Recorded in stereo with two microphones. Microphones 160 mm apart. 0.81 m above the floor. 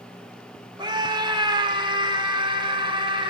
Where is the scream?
25° right (ahead or behind), 2 m; by 3.3 s 30° right (ahead or behind), 4.5 m.